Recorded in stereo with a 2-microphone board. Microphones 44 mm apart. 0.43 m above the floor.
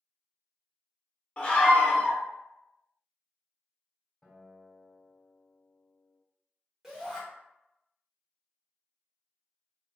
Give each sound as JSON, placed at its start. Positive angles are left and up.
{"t": 1.4, "sound": "a scream", "side_deg": 25, "distance_m": 0.8}
{"t": 4.2, "sound": "a guitar", "side_deg": 5, "distance_m": 1.8}
{"t": 6.8, "sound": "a shout", "side_deg": -5, "distance_m": 1.0}